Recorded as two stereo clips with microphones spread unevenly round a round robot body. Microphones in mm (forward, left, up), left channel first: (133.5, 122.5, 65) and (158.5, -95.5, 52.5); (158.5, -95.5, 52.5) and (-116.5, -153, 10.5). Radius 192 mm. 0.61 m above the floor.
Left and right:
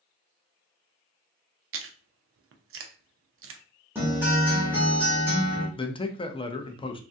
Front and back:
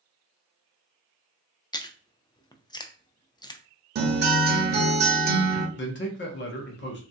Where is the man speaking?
40° left, 0.6 m.